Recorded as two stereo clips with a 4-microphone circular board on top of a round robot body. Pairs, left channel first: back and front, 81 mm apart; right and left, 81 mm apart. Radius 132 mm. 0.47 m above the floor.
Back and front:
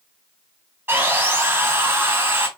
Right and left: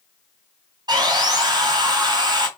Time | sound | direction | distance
0.9 | sawing | 60° left | 3.5 m